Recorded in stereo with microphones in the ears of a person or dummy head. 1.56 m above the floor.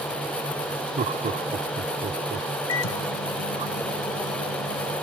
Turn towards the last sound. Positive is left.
turn(degrees=75)  # may be behind; listen again after turning